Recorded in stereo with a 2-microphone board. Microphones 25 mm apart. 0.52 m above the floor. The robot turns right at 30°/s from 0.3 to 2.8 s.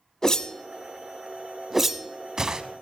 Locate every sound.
0.2 s a whoosh: 25° left (ahead or behind), 0.5 m; by 2.6 s 35° right (ahead or behind), 0.5 m